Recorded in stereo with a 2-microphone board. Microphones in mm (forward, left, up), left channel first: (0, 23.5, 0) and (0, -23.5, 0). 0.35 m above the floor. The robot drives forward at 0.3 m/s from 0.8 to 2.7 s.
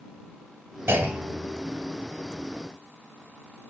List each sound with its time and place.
0.9 s a clunk: 60° right (ahead or behind), 1.8 m; by 1.7 s 55° right (ahead or behind), 1.9 m